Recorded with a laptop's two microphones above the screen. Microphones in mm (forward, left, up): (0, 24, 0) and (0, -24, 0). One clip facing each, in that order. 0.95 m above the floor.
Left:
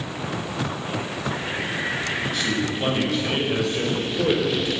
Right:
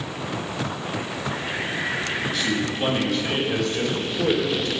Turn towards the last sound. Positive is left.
turn(degrees=15)  # may be behind; listen again after turning